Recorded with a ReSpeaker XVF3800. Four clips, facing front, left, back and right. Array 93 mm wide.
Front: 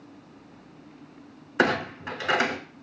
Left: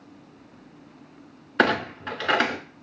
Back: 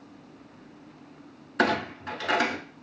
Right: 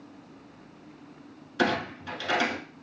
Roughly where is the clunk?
Left.